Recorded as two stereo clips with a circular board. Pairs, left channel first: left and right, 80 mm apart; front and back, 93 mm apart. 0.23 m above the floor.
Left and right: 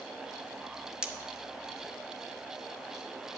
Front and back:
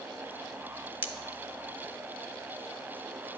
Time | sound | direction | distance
1.0 | cutlery clinking | 160° right | 0.8 m